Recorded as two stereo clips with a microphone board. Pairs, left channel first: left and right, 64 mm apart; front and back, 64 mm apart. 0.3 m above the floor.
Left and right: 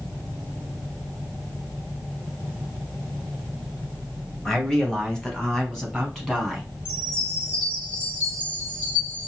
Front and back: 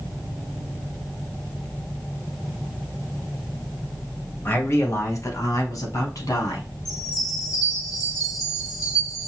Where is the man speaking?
15° left, 1.1 m; by 6.7 s 10° left, 2.5 m.